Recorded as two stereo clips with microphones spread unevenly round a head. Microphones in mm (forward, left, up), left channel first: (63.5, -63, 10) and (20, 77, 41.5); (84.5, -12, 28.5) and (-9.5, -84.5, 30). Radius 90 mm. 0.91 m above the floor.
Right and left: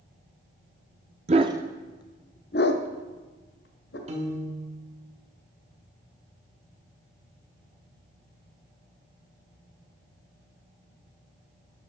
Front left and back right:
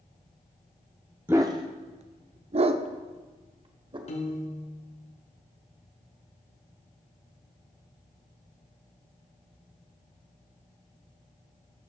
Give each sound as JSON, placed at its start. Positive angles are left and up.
{"t": 1.3, "sound": "a dog barking", "azimuth_deg": 140, "distance_m": 0.6}
{"t": 4.1, "sound": "a piano", "azimuth_deg": 60, "distance_m": 2.0}